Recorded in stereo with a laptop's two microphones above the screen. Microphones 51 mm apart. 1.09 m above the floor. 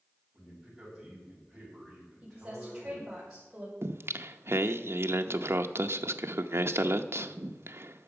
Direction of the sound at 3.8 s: 60° right (ahead or behind).